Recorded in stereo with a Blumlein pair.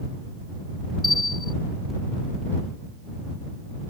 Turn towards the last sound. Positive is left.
turn(degrees=10)